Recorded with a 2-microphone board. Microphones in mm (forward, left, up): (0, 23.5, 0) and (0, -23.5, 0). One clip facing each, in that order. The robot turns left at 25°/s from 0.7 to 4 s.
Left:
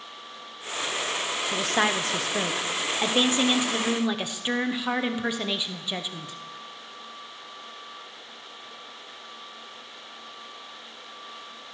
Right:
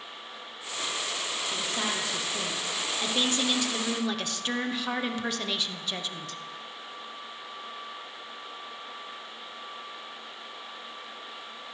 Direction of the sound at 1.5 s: 80° left.